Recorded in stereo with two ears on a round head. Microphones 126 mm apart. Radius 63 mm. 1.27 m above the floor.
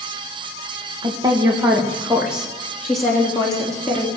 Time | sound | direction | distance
1.0 | a woman speaking | 30° right (ahead or behind) | 1.5 m